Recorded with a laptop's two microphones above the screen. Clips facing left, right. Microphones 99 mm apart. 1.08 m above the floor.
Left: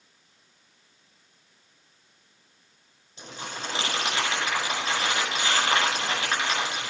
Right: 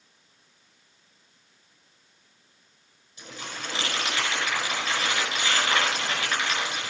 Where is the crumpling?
30° left (ahead or behind), 5 m.